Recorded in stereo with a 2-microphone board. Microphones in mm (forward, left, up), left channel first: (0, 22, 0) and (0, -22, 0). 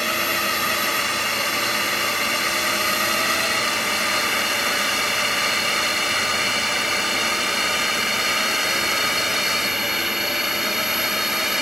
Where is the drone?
5° left (ahead or behind); by 11.6 s 5° right (ahead or behind).